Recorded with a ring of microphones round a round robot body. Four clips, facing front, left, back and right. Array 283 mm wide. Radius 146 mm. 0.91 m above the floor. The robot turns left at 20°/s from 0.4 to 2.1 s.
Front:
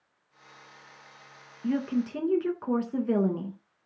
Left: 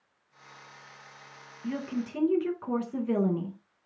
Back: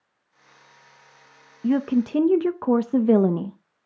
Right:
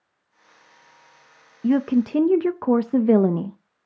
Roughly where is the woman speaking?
Behind right.